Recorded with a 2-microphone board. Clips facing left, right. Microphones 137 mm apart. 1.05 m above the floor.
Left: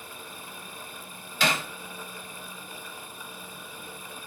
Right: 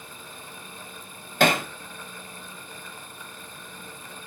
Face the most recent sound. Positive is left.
turn(degrees=-55)  # may be behind; listen again after turning